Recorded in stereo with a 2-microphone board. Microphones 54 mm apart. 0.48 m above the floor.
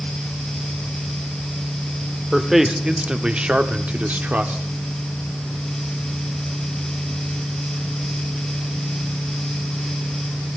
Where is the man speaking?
5° right (ahead or behind), 1.0 m; by 4.6 s 30° right (ahead or behind), 0.9 m.